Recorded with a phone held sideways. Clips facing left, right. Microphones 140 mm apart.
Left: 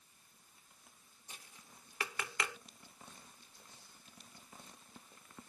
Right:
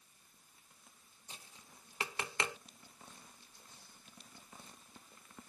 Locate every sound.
1.3 s tapping: 25° right (ahead or behind), 0.8 m